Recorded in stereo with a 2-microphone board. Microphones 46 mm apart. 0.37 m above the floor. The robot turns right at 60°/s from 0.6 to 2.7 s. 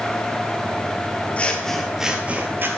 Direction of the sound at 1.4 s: 155° left.